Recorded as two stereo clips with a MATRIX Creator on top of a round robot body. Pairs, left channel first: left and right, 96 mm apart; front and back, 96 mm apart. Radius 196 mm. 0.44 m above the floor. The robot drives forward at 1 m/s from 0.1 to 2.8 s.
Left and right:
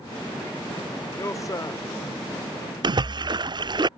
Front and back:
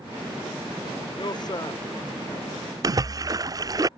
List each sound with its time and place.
1.1 s a man speaking: 35° left; by 1.8 s 45° left
2.8 s a splash: 130° right